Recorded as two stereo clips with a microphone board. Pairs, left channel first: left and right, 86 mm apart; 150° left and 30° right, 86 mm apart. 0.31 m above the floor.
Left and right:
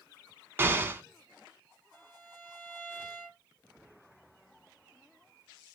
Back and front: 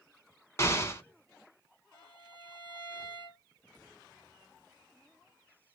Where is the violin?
160° right, 1.2 m.